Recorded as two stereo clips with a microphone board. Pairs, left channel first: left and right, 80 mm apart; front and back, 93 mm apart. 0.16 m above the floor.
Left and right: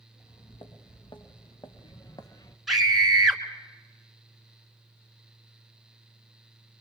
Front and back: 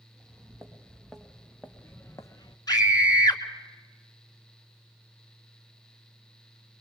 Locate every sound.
0.1 s footsteps: 100° left, 3 m; by 2.6 s 40° left, 1.4 m
2.7 s a scream: straight ahead, 2 m